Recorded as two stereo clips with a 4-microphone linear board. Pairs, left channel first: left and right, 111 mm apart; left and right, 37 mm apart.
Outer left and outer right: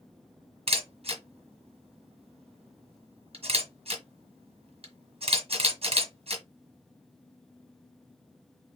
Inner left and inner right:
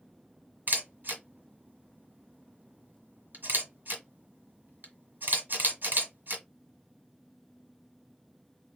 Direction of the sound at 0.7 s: 65° right (ahead or behind).